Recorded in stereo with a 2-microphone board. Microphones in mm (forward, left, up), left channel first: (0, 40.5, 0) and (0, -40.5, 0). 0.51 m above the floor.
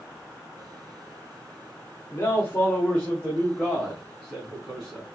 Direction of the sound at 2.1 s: 35° left (ahead or behind).